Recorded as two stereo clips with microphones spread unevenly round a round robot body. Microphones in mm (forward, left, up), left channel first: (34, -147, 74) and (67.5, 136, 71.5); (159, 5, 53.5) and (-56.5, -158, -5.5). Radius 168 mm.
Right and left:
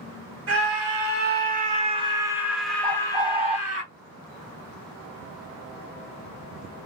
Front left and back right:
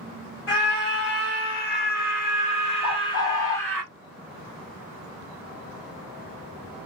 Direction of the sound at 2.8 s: 10° left.